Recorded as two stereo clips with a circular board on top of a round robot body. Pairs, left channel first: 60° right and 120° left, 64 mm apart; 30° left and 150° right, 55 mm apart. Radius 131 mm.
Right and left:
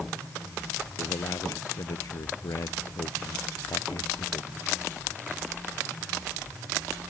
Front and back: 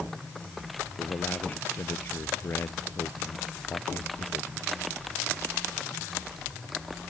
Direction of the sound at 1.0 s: 25° right.